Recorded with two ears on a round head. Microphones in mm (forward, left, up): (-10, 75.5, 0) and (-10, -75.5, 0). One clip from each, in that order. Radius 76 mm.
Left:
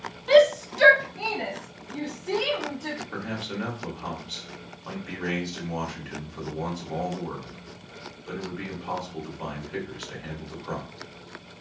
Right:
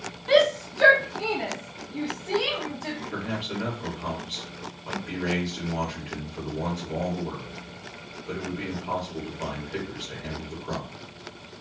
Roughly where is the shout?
Centre.